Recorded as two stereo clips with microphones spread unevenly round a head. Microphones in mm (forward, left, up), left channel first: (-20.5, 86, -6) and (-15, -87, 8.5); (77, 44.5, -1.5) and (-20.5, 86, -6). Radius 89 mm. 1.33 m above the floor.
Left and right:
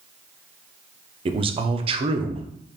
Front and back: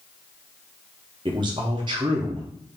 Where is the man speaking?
150° right, 0.5 m.